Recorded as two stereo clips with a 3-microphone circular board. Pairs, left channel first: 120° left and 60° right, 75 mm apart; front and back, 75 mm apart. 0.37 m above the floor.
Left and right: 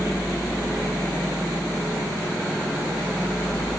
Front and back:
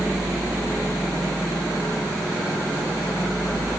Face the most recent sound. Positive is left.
No sound to turn to.